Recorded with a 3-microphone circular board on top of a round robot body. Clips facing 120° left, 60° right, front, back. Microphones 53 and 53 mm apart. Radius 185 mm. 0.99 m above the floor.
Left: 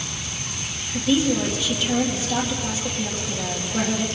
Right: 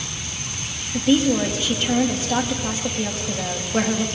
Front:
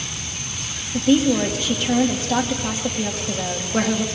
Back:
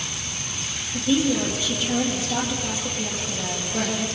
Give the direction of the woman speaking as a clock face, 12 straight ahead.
1 o'clock.